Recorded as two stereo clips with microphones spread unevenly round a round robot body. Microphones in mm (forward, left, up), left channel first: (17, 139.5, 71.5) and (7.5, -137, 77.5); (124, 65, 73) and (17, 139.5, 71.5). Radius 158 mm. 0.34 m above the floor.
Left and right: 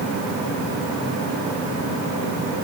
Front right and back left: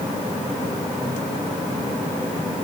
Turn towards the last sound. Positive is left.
No sound to turn to.